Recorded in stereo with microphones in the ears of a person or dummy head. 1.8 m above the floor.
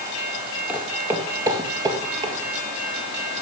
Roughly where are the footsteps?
Centre.